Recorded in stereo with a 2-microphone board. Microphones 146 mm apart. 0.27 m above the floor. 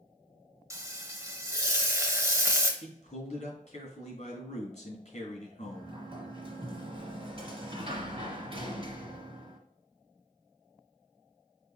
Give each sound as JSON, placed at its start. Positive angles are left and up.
{"t": 0.7, "sound": "frying", "side_deg": -20, "distance_m": 0.7}
{"t": 2.8, "sound": "a man speaking", "side_deg": 55, "distance_m": 2.5}
{"t": 5.6, "sound": "a sliding door", "side_deg": -40, "distance_m": 1.5}